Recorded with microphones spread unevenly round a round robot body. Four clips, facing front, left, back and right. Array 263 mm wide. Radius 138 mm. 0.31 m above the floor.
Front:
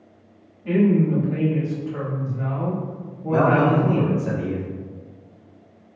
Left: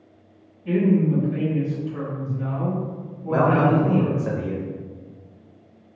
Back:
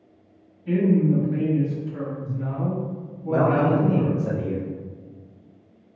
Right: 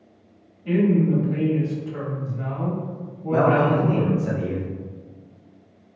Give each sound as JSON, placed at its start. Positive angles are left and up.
{"t": 0.7, "sound": "a woman speaking", "azimuth_deg": -20, "distance_m": 1.7}
{"t": 3.3, "sound": "a man speaking", "azimuth_deg": 110, "distance_m": 1.1}